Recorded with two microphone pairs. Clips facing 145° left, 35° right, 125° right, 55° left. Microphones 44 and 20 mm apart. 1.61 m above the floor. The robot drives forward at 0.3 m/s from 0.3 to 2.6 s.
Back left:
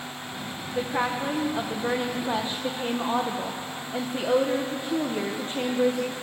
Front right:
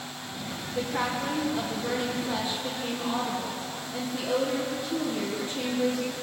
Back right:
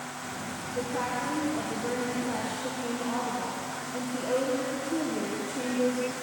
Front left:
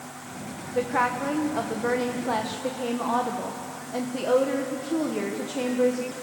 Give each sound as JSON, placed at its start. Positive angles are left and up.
{"t": 0.8, "sound": "a woman speaking", "azimuth_deg": 75, "distance_m": 1.5}